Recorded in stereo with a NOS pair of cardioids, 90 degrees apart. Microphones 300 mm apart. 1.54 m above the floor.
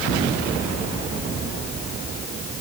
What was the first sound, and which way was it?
Only background noise.